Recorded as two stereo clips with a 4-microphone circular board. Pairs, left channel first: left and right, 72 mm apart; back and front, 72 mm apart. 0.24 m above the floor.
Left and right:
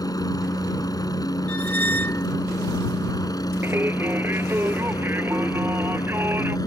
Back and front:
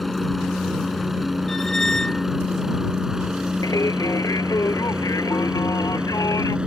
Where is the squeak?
105° left.